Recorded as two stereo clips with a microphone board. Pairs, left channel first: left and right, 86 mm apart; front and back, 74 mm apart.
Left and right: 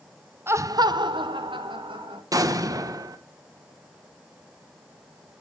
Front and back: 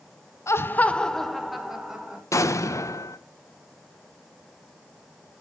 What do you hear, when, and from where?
0.5 s laughter: 35° right, 0.8 m; by 2.2 s 100° right, 2 m
2.3 s an explosion: 45° right, 1.0 m